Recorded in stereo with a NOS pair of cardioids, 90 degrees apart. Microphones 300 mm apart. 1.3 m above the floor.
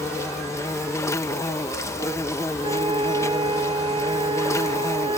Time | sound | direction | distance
0.0 | an insect | 10° left | ?
2.6 | a flute | 15° right | ?